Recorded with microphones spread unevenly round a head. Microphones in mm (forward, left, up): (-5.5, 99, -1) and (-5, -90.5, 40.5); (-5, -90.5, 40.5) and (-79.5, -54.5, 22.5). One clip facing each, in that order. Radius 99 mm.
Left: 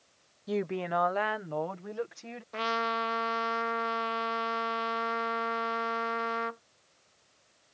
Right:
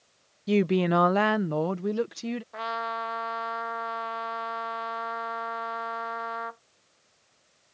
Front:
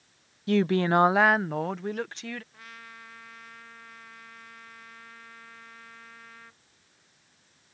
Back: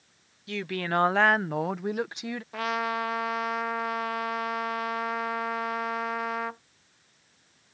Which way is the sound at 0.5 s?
45° right.